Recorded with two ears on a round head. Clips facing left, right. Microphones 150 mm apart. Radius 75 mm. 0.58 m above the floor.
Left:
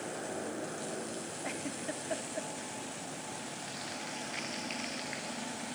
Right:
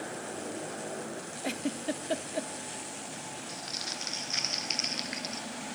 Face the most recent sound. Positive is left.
turn(degrees=-45)  # may be behind; listen again after turning